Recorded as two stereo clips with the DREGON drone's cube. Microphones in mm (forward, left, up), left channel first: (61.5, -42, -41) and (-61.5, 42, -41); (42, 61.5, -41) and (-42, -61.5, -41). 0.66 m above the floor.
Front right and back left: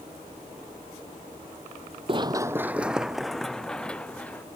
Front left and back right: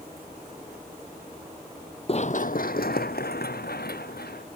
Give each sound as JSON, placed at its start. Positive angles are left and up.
{"t": 2.1, "sound": "running footsteps", "azimuth_deg": 95}